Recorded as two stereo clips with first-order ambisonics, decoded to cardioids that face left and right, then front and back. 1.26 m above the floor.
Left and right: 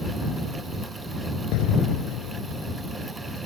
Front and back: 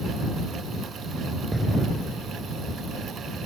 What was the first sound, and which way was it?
An explosion, 95° left.